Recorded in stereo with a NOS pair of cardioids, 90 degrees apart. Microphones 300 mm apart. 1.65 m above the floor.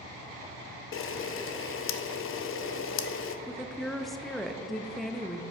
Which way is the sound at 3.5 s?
Straight ahead.